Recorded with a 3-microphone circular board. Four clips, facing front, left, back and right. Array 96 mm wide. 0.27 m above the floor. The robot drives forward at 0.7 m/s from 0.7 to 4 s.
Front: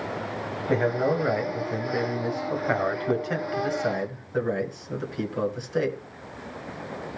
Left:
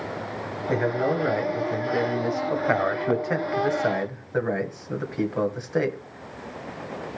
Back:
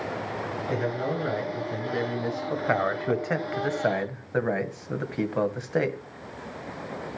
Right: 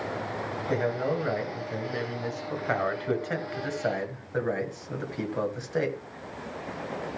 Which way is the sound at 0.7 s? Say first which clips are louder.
Left 4 dB, front 6 dB; 20° left.